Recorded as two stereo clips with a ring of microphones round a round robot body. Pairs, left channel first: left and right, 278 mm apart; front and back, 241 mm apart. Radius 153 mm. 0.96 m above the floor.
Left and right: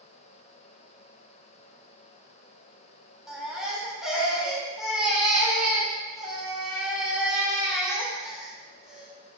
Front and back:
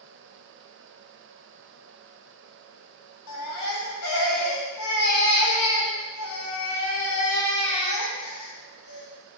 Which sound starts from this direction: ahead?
A baby crying, at 3.3 s.